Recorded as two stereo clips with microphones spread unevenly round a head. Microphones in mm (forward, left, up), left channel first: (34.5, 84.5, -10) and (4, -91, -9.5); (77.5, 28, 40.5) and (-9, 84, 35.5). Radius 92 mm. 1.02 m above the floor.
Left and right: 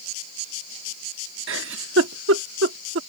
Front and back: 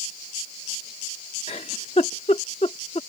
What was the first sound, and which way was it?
A giggle, 90° right.